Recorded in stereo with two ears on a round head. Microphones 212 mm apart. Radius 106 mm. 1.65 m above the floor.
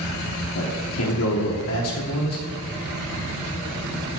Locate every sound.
0.6 s a man speaking: 65° left (ahead or behind), 1.0 m